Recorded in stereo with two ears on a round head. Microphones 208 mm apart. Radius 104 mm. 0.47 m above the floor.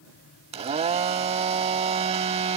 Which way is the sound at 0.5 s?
25° right (ahead or behind).